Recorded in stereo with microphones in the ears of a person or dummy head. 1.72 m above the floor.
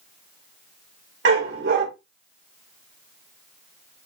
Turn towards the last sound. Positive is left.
turn(degrees=-70)  # may be behind; listen again after turning